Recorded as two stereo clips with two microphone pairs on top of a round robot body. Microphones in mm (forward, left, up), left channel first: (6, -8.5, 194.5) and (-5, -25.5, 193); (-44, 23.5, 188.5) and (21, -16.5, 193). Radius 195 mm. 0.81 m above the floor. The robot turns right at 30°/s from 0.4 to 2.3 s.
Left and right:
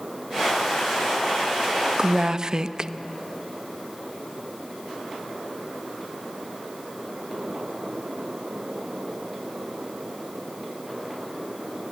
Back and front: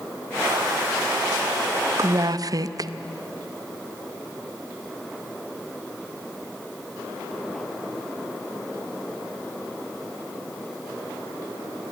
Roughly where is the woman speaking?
Right.